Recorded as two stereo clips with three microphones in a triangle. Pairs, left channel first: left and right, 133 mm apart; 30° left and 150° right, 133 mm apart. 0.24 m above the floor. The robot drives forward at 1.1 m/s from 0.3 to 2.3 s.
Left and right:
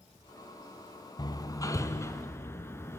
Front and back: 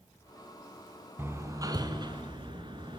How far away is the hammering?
About 1.5 m.